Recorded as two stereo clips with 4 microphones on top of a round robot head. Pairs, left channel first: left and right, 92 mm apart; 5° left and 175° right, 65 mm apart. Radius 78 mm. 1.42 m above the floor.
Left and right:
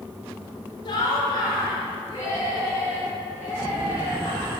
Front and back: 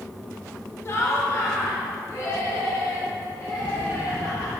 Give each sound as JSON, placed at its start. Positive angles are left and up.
{"t": 0.8, "sound": "laughter", "azimuth_deg": 55, "distance_m": 1.6}